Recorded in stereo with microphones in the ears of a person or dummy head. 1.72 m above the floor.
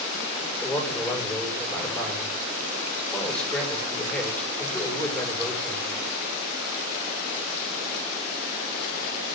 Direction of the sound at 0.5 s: 5° left (ahead or behind).